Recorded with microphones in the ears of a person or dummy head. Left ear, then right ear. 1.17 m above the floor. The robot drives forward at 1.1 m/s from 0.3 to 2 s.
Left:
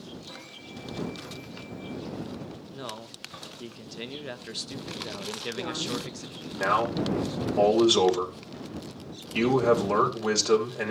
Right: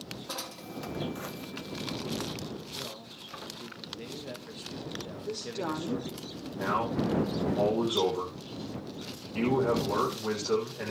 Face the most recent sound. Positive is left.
turn(degrees=85)